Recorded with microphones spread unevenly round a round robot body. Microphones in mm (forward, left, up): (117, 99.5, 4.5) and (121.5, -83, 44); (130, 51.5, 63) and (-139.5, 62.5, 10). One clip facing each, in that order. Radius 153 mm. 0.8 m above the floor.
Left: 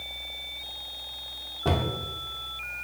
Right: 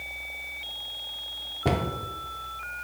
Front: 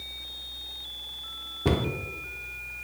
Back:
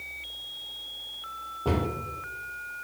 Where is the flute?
No flute in this recording.